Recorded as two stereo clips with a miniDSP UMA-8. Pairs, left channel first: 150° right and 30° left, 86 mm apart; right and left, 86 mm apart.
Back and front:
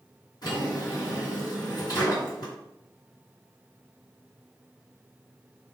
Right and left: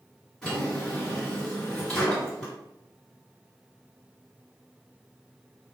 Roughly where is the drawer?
Behind.